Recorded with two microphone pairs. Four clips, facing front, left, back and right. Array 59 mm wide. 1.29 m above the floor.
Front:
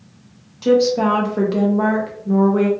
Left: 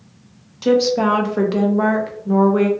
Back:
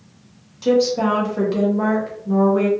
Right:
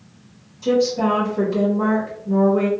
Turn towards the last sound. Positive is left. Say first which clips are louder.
# left 3 dB, front 2 dB
turn(degrees=80)